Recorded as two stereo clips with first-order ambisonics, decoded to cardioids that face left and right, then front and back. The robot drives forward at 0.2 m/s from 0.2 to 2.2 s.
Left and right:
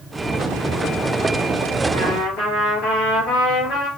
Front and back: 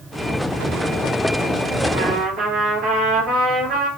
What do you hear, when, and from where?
1.9 s a trumpet: 130° left, 1.9 m